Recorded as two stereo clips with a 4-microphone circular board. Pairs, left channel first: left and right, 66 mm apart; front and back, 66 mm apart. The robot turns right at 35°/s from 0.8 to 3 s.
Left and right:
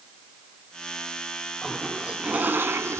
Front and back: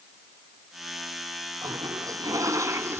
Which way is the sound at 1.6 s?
Straight behind.